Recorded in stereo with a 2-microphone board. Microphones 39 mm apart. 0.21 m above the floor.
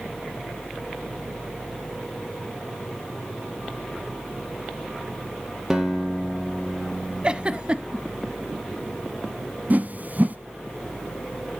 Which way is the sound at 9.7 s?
45° right (ahead or behind).